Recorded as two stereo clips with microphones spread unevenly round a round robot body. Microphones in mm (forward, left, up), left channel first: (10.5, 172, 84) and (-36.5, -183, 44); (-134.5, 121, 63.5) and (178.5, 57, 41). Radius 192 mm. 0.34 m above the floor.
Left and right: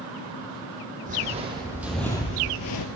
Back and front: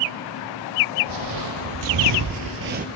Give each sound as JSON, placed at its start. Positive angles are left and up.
{"t": 1.1, "sound": "footsteps", "azimuth_deg": -25, "distance_m": 1.0}